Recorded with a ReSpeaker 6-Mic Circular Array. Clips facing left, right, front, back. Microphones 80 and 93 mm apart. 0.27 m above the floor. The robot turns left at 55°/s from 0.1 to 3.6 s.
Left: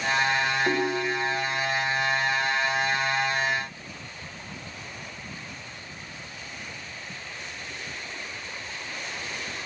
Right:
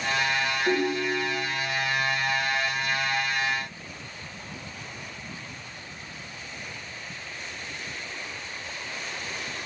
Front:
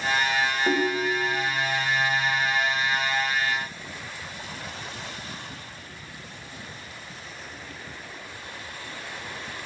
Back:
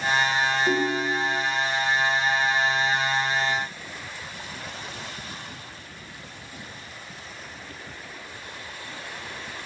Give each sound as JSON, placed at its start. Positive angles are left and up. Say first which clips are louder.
{"t": 0.7, "sound": "a ringtone", "louder": "even, even", "azimuth_deg": 35, "distance_m": 0.9}